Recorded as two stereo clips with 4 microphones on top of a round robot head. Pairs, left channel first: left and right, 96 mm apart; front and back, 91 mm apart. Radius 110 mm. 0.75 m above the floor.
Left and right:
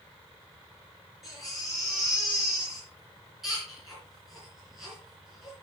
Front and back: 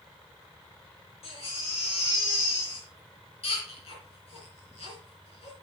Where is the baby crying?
Straight ahead, 3.5 m.